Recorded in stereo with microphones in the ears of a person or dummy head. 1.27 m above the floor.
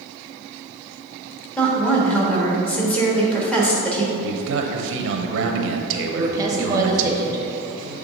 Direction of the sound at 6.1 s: 15° right (ahead or behind).